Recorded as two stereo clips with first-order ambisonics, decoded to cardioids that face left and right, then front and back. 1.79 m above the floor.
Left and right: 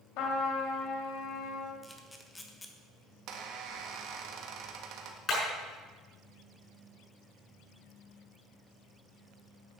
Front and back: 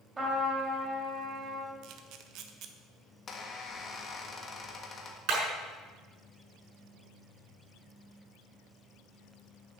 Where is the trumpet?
105° left, 3 m.